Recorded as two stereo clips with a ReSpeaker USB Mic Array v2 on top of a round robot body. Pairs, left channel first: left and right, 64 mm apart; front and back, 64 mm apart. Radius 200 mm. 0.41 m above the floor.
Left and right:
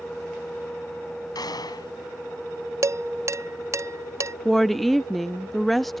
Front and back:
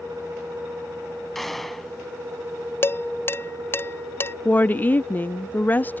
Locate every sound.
1.4 s a gunshot: 85° left
2.8 s dishes clattering: 50° right
4.5 s a woman speaking: 5° left